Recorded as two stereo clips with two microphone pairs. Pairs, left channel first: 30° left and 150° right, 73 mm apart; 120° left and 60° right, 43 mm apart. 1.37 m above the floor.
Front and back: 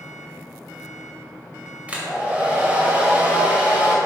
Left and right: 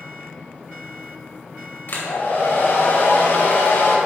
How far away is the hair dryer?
About 1.7 m.